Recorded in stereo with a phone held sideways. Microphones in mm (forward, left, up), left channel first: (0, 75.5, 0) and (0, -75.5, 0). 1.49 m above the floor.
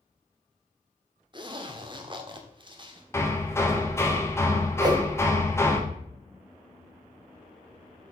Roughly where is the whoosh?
Right.